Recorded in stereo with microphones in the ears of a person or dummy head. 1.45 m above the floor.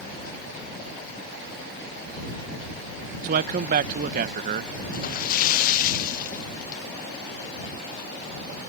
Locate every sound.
3.2 s a man speaking: 45° right (ahead or behind)
4.9 s a splash: 50° left (ahead or behind)